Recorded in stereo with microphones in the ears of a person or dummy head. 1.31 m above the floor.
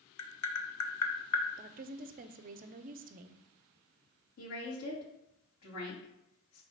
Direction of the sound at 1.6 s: 45° right (ahead or behind).